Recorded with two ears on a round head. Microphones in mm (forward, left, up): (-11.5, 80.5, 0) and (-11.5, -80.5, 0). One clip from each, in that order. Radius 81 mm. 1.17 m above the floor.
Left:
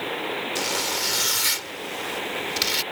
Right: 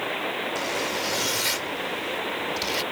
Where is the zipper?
35° left (ahead or behind).